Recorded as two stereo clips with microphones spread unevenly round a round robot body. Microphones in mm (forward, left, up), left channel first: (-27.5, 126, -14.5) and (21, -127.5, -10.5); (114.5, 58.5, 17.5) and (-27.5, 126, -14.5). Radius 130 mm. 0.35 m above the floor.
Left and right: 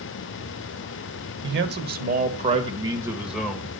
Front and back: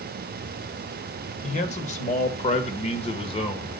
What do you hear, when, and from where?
1.4 s a man speaking: 65° right, 1.6 m; by 3.7 s 20° left, 1.3 m